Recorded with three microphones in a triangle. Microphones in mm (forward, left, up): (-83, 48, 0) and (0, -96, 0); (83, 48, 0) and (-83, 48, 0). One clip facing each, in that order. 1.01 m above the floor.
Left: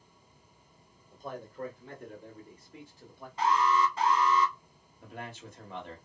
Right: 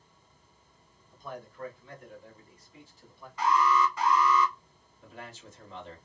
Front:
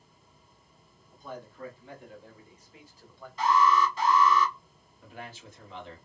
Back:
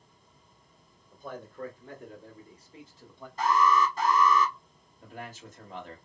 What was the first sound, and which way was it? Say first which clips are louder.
A man speaking: left 2 dB, back 1 dB; 160° left.